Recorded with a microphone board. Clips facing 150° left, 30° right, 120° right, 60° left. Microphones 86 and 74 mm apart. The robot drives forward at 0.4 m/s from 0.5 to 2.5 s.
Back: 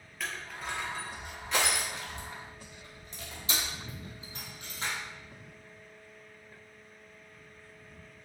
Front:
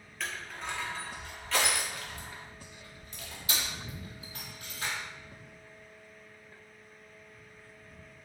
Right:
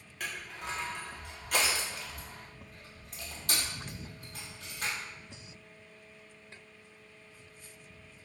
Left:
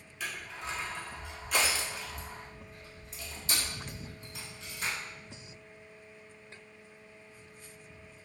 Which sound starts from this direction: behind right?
Crushing, at 0.2 s.